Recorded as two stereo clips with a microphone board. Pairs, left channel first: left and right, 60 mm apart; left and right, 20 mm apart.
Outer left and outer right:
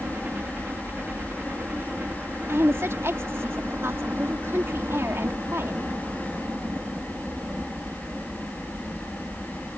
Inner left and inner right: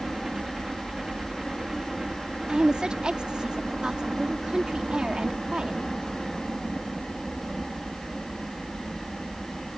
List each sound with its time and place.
0.0 s a helicopter: 30° right (ahead or behind)
2.5 s a woman speaking: 45° right (ahead or behind)